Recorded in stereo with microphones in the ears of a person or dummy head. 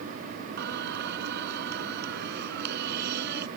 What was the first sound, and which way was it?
Singing, 60° right (ahead or behind).